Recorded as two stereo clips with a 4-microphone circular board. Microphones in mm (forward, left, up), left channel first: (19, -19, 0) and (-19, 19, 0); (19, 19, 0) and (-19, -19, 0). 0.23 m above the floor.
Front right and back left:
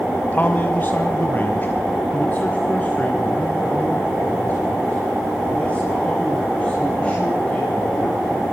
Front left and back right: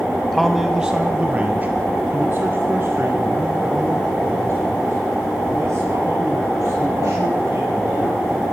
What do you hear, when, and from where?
0.2 s a man speaking: 35° right, 1.4 m; by 8.4 s 110° right, 7.5 m